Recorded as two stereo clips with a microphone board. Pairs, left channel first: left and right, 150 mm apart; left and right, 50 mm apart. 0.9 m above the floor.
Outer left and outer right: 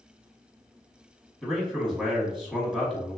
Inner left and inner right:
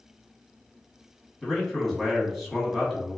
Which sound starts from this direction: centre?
A man speaking, at 1.4 s.